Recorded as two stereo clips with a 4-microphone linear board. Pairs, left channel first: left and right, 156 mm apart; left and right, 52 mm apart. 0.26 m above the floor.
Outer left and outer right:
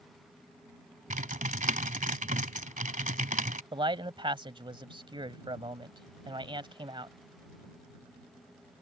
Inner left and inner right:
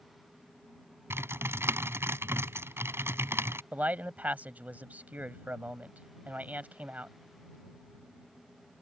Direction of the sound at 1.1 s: 55° right (ahead or behind).